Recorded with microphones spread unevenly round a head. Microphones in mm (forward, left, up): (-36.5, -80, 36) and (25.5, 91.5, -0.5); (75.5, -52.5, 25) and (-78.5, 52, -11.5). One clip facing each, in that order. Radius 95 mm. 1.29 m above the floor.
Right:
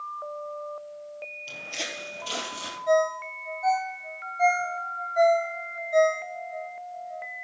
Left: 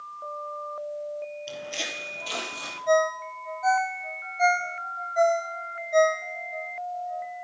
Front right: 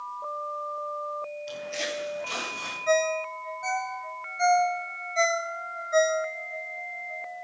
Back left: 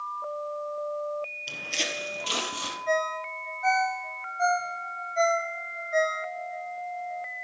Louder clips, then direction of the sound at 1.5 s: Left 3 dB, front right 4 dB; 160° left.